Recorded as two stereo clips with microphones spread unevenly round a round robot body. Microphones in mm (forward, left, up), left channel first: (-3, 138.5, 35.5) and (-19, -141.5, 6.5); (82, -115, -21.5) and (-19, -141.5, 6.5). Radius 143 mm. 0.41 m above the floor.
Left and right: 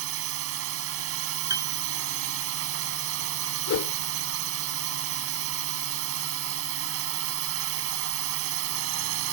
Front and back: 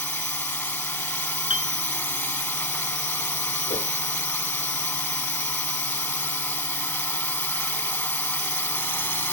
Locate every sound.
0.0 s a drone: 55° right
1.5 s a piano: 15° right
3.7 s a whoosh: 50° left